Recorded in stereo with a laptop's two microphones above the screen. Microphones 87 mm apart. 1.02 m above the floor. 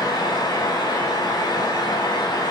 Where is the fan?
50° left (ahead or behind), 1.2 m.